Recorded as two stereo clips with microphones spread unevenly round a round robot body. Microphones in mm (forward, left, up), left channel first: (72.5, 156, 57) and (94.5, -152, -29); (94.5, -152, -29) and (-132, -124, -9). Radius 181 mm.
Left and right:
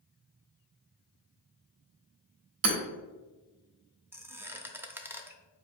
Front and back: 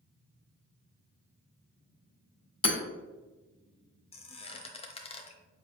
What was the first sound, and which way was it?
Hammering, 70° right.